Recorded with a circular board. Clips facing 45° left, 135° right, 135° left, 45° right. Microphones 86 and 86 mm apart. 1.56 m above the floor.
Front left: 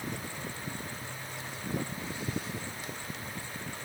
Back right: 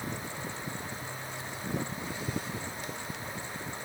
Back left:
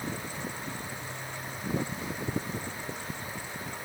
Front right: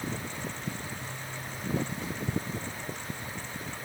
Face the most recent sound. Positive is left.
No sound to turn to.